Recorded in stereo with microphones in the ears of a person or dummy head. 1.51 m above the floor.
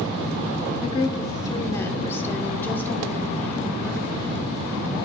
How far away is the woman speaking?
About 0.7 m.